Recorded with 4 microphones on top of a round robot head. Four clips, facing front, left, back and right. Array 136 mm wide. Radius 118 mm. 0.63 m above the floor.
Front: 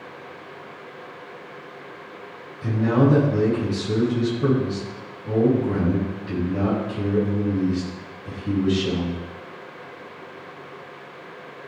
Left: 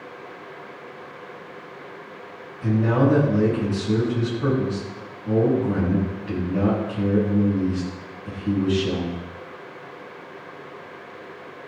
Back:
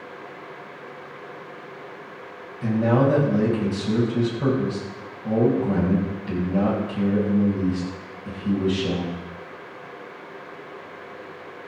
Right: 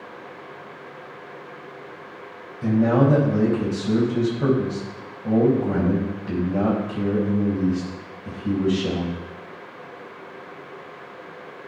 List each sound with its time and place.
2.6 s a man speaking: 120° right, 5.5 m